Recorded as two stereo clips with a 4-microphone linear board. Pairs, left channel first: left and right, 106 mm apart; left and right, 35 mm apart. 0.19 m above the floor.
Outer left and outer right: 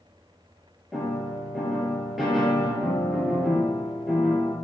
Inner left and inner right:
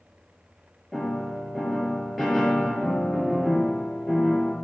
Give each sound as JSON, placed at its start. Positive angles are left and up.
{"t": 0.9, "sound": "a piano", "side_deg": 0, "distance_m": 2.5}